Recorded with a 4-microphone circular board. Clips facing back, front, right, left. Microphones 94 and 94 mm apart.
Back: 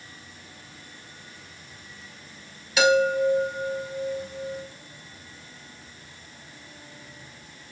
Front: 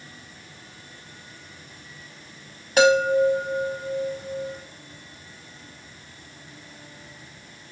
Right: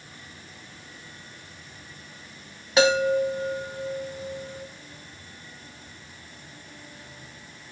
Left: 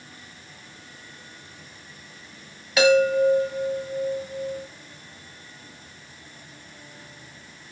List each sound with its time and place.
2.8 s a chime: 35° right, 1.5 m